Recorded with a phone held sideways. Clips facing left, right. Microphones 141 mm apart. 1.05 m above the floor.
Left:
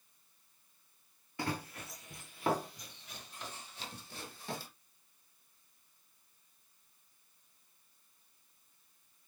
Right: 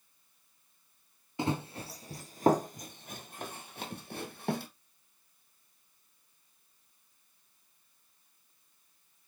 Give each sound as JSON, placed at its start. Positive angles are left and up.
{"t": 1.4, "sound": "running footsteps", "side_deg": -20, "distance_m": 1.1}